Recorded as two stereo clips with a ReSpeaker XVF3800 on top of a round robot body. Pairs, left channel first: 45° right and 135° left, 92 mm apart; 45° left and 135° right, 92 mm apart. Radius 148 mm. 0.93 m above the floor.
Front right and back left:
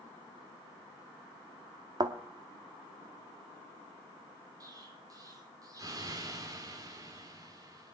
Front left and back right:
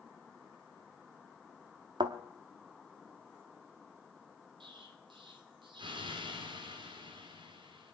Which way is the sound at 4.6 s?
170° right.